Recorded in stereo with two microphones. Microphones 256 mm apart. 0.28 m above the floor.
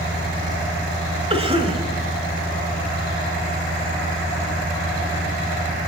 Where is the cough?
25° right (ahead or behind), 1.2 m.